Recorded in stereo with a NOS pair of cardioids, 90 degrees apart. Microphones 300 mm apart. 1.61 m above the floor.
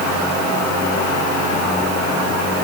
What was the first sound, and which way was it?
Only background noise.